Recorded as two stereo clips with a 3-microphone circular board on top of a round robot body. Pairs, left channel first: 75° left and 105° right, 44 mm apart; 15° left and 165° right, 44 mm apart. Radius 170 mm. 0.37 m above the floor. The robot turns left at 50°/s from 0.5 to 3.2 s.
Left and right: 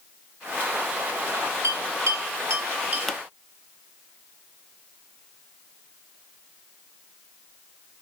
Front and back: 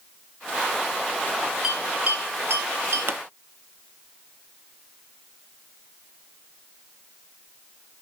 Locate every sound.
1.6 s a bell: 85° right, 3.5 m; by 3.0 s 150° right, 3.5 m
3.1 s a pop: 160° left, 0.7 m; by 3.2 s 155° left, 0.7 m